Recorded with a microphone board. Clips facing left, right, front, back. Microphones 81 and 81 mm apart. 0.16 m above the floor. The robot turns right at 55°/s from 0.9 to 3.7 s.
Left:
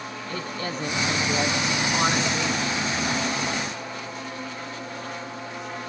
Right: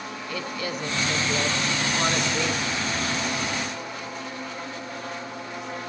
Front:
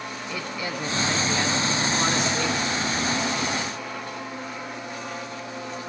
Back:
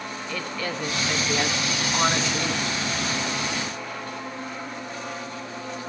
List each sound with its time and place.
0.3 s a woman speaking: 65° left, 1.9 m; by 2.6 s 160° left, 1.9 m